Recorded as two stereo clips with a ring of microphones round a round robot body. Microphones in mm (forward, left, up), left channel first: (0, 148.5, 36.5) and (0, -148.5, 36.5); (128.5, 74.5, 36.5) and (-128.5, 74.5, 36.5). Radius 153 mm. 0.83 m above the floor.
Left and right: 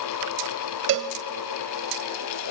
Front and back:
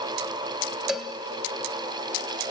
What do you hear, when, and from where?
0.9 s a cowbell: 90° right, 0.7 m